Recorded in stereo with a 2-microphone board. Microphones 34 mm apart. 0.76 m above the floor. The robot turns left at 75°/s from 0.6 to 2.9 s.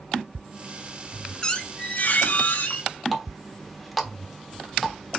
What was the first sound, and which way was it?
A squeak, 155° left.